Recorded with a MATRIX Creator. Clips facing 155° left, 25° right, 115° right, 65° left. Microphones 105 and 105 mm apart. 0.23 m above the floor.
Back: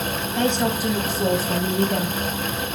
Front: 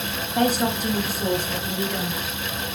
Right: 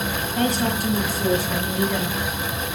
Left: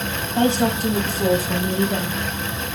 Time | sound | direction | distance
0.3 | a woman speaking | 40° left | 1.2 m